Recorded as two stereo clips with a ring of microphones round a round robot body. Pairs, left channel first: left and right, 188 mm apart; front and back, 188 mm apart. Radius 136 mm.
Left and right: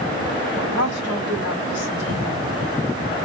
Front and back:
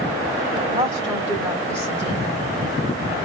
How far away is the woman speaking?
About 2.5 m.